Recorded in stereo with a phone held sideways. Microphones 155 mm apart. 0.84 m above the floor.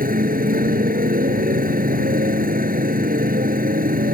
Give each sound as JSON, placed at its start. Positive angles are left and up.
{"t": 0.0, "sound": "a motorcycle", "side_deg": -70}